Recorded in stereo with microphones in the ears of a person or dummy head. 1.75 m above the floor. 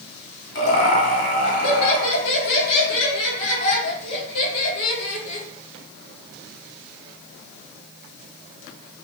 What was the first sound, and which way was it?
Laughter, 60° left (ahead or behind).